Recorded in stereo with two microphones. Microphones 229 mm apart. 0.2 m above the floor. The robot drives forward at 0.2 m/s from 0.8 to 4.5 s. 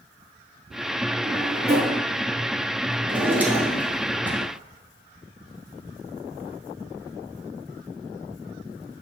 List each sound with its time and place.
1.2 s a drawer: 45° right (ahead or behind), 1.6 m
3.1 s a drawer: 5° right (ahead or behind), 1.1 m; by 4.4 s 10° right (ahead or behind), 0.8 m